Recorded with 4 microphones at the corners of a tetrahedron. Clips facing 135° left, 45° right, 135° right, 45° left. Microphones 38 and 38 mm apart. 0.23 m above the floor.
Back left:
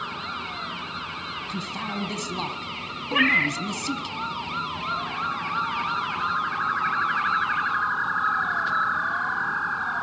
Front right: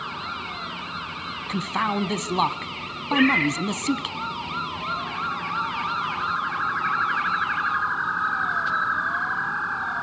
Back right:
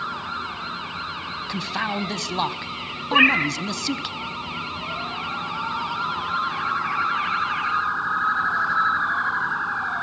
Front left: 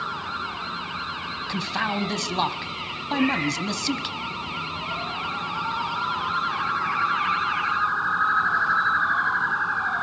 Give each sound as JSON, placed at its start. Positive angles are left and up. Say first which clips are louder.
{"t": 1.5, "sound": "a man speaking", "louder": "front right 9 dB, even", "azimuth_deg": -45, "distance_m": 1.4}
{"t": 3.1, "sound": "a cat meowing", "louder": "front right 1 dB, back right 6 dB", "azimuth_deg": -145, "distance_m": 1.6}